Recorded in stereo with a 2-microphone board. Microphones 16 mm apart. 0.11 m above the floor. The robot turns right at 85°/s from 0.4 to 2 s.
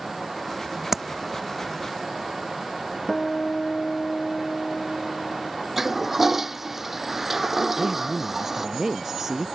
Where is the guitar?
40° left (ahead or behind).